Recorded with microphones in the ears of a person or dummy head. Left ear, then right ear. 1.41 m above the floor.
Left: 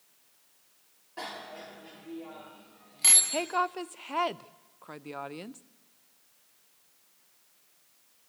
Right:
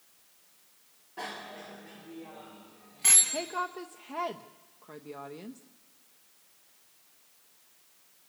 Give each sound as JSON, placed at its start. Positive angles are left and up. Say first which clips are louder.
{"t": 1.2, "sound": "a bicycle bell", "louder": "even", "side_deg": 35, "distance_m": 2.5}
{"t": 3.3, "sound": "a woman speaking", "louder": "left 4 dB", "side_deg": 45, "distance_m": 0.6}